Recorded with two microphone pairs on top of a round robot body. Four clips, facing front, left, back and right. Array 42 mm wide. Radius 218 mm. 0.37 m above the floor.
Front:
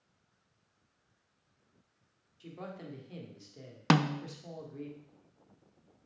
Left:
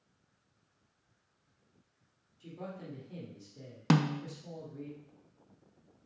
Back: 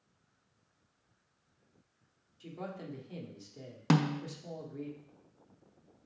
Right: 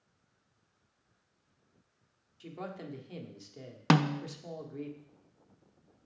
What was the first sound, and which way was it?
A man speaking, 75° right.